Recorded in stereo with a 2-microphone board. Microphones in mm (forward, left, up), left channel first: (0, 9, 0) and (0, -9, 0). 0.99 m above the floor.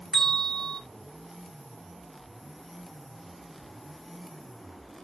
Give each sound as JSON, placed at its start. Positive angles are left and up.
{"t": 0.1, "sound": "a bell", "side_deg": 30, "distance_m": 1.1}